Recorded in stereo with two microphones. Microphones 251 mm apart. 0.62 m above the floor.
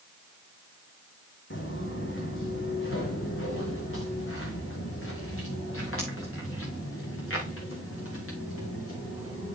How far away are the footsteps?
About 2.5 m.